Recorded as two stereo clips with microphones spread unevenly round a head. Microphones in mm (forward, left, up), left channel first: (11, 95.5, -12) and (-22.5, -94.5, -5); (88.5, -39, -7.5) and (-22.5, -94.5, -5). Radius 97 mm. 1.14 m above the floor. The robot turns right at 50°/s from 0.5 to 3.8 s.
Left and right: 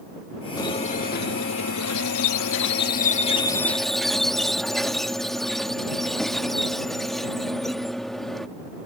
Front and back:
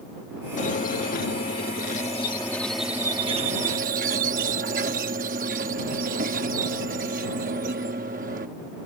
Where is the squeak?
5° left; by 8.5 s 170° left.